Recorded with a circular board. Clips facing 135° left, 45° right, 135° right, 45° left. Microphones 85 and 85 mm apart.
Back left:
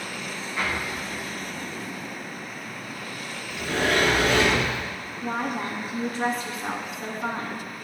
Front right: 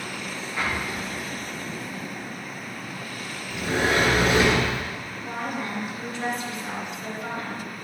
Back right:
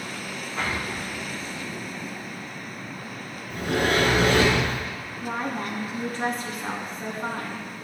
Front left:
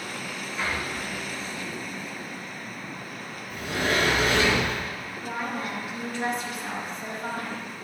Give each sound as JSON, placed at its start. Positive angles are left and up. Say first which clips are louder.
{"t": 0.6, "sound": "an explosion", "louder": "front right 1 dB, back right 1 dB", "azimuth_deg": -125, "distance_m": 4.5}
{"t": 3.5, "sound": "a sliding door", "louder": "front right 1 dB, back right 3 dB", "azimuth_deg": -110, "distance_m": 3.0}
{"t": 5.2, "sound": "a woman speaking", "louder": "back left 3 dB, back right 2 dB", "azimuth_deg": 180, "distance_m": 2.5}